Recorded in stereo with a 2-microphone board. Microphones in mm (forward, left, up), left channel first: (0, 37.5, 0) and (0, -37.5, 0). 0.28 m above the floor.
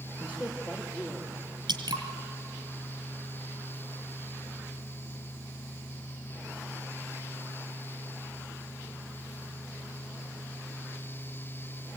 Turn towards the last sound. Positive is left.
turn(degrees=-85)